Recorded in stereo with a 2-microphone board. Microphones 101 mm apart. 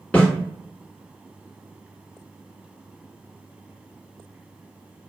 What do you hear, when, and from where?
0.1 s a snare drum: 15° left (ahead or behind), 1.4 m